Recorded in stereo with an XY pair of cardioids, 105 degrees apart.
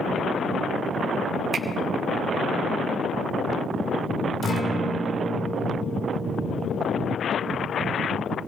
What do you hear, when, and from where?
1.5 s a finger snap: 45° right, 2 m
4.4 s a guitar: 50° left, 2 m